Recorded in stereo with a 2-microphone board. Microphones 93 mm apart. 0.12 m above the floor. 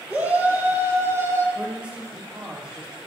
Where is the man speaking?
10° right (ahead or behind), 4.5 m.